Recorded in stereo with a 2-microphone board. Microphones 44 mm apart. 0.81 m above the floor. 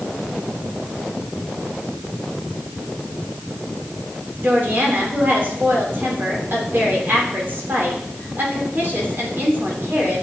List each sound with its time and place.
4.4 s a woman speaking: 50° right (ahead or behind), 2.5 m